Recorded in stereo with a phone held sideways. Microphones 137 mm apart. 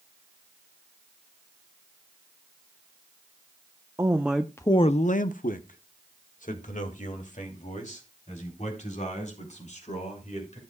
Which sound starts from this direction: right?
A man speaking, at 4.0 s.